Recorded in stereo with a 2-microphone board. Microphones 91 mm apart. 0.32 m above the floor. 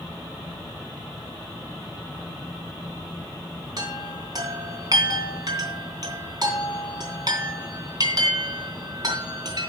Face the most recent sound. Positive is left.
turn(degrees=-45)  # may be behind; listen again after turning